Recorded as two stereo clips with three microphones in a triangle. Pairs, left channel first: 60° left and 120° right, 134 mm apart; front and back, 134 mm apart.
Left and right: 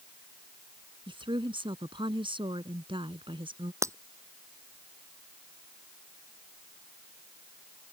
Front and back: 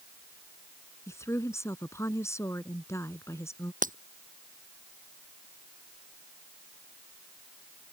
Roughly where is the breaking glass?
Behind.